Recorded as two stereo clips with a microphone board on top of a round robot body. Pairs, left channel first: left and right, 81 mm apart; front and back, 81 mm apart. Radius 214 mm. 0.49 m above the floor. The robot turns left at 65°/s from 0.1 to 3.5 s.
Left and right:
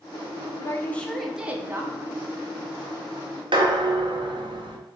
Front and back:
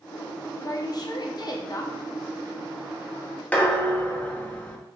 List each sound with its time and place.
0.6 s a woman speaking: 40° left, 1.1 m; by 1.9 s 45° right, 1.1 m
3.5 s dishes clattering: 75° right, 0.9 m